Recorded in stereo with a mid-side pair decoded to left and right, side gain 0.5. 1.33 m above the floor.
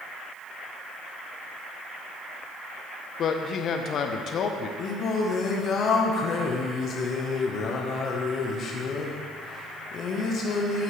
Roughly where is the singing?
Ahead left.